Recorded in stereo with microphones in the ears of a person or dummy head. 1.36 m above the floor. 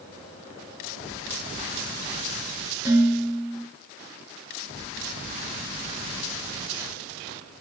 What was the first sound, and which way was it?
Dishes clattering, 20° right (ahead or behind).